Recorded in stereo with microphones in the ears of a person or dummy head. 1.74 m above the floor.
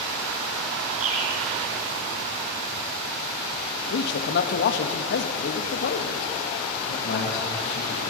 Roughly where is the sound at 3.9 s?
Left.